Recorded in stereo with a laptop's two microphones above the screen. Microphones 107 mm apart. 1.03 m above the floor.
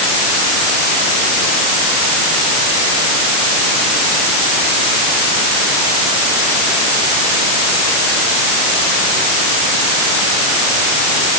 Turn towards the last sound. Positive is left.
No sound to turn to.